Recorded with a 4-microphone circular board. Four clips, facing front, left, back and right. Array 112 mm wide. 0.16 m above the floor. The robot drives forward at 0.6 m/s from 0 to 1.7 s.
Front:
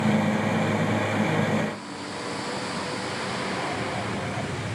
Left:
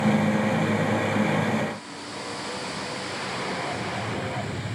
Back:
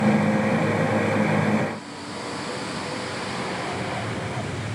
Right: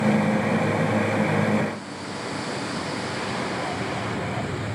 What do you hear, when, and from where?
Only background noise.